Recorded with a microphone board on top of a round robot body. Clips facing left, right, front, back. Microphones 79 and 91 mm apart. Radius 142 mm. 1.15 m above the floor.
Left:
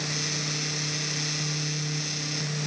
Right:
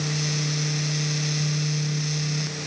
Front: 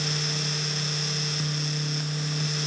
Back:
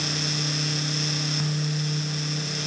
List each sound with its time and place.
Only background noise.